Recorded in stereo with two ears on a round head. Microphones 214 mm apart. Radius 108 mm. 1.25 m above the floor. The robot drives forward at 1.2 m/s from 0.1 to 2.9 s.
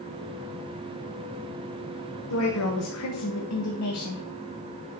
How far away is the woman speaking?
About 1.2 m.